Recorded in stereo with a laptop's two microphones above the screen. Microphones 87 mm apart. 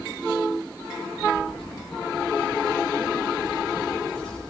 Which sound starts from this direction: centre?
Keys jangling, at 1.2 s.